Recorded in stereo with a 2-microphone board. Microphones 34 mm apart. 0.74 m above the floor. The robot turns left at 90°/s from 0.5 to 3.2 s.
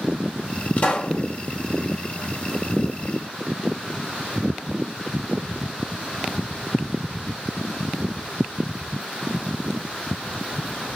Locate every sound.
0.8 s a pop: 80° left, 1.4 m; by 1.2 s 40° left, 1.4 m